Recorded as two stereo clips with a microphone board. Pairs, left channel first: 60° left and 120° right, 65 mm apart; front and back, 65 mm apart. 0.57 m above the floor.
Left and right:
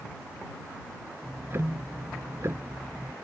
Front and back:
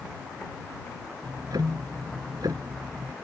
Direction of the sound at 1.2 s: 170° right.